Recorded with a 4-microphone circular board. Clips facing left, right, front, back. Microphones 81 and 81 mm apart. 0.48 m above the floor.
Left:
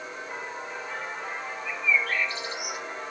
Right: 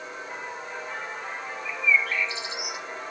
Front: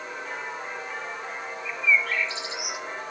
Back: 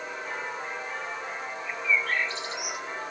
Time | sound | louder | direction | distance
1.6 | a bird | right 2 dB, front 3 dB | 135° left | 1.9 m